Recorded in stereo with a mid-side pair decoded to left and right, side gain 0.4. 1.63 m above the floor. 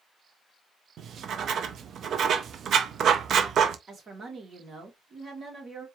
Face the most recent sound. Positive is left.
turn(degrees=-50)